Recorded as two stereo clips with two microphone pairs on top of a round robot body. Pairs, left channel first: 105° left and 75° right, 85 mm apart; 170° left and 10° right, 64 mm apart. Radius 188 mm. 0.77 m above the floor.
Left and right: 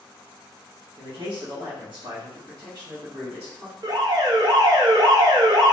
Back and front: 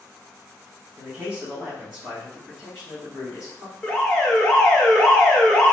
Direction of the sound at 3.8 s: 115° right.